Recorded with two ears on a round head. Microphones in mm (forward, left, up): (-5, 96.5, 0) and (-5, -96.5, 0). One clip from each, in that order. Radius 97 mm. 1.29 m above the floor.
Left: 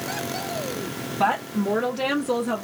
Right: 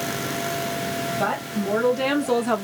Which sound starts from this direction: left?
A woman speaking, at 1.2 s.